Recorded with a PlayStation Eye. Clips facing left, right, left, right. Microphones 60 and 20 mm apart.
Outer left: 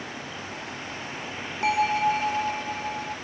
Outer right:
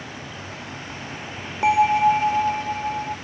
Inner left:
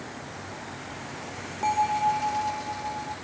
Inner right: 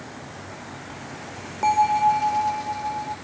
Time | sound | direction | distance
1.6 | a bell | 20° right (ahead or behind) | ?